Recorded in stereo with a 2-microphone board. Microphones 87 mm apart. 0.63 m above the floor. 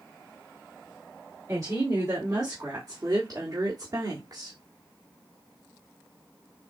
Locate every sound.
1.5 s a woman speaking: 40° right (ahead or behind), 2.5 m; by 4.6 s 50° right (ahead or behind), 1.6 m